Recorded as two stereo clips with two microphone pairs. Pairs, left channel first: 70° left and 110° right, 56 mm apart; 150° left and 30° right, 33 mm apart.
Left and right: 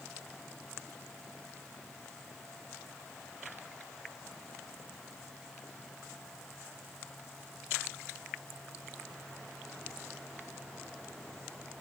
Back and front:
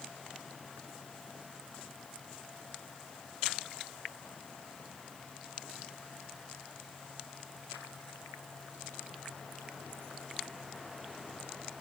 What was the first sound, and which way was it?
Only background noise.